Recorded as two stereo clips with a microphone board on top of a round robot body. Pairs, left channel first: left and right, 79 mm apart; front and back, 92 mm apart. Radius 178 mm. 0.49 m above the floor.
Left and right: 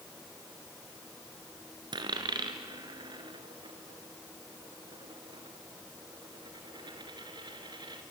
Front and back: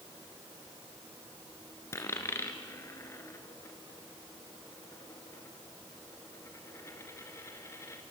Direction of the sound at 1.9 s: 65° right.